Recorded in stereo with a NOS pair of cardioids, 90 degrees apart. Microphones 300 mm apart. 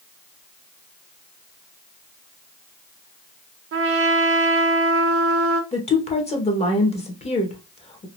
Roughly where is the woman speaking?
Ahead.